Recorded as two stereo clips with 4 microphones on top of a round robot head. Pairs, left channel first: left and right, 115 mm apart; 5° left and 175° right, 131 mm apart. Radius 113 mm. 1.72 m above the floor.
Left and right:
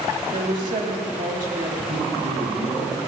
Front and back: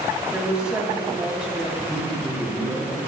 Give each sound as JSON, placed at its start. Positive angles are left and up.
{"t": 0.3, "sound": "a woman speaking", "azimuth_deg": -90, "distance_m": 2.5}
{"t": 1.9, "sound": "a man speaking", "azimuth_deg": -100, "distance_m": 5.5}